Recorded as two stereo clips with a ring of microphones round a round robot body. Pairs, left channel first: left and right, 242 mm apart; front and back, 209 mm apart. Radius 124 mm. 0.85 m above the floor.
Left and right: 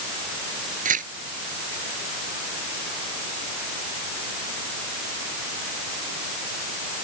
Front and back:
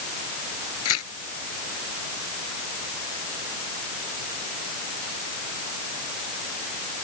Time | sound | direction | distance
0.8 | tearing paper | 30° right | ?